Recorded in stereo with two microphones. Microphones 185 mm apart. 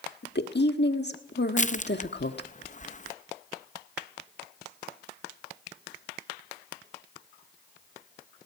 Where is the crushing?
40° left (ahead or behind), 0.5 m.